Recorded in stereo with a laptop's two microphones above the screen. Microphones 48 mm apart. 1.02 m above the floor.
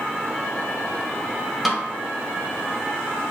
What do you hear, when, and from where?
1.6 s a snare drum: 5° right (ahead or behind), 0.8 m